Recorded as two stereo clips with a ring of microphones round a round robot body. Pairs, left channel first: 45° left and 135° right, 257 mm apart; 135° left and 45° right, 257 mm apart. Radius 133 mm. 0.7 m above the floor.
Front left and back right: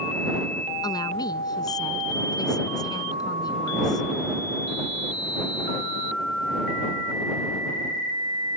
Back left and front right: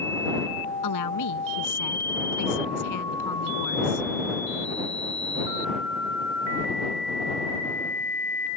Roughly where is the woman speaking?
Behind left.